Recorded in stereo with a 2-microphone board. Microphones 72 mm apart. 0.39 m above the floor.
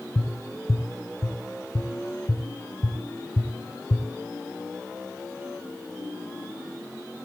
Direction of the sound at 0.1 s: 45° left (ahead or behind).